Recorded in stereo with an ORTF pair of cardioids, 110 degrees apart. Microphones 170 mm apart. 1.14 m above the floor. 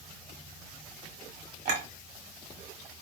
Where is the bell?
I don't hear a bell.